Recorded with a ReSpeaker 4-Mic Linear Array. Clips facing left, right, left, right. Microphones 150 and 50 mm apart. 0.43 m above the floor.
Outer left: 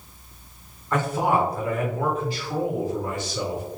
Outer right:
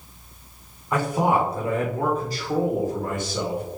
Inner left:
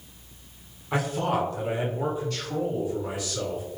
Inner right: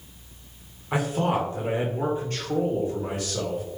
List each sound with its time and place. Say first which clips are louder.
0.9 s a man speaking: outer right 1 dB, inner right 1 dB; 10° right (ahead or behind), 1.4 m; by 3.6 s 55° right (ahead or behind), 2 m